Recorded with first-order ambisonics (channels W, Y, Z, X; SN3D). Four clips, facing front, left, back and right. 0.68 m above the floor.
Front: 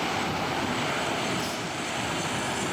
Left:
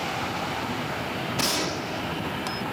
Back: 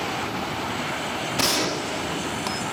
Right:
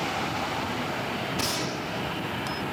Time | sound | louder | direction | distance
1.4 | a gunshot | left 3 dB, back 7 dB | 165° left | ?